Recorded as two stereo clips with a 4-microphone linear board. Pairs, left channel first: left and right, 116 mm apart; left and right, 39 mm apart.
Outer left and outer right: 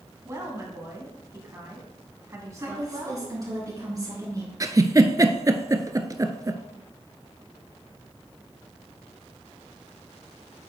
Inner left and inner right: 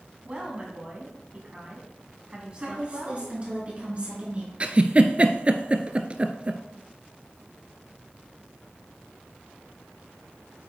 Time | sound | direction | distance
0.2 | a woman speaking | 30° right (ahead or behind) | 1.6 m
2.6 | a woman speaking | 30° right (ahead or behind) | 3.5 m
4.6 | a giggle | 30° right (ahead or behind) | 0.6 m